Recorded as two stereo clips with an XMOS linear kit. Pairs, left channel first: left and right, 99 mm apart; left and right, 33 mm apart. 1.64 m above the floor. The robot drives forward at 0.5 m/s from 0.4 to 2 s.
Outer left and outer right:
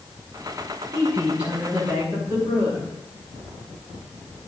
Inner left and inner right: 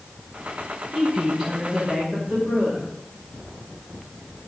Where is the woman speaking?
15° right (ahead or behind), 7 m.